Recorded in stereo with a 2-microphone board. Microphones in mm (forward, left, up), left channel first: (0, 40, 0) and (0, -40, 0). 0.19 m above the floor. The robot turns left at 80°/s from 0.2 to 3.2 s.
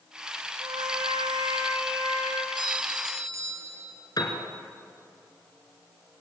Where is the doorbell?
85° right, 4 m; by 4.0 s 135° right, 4 m.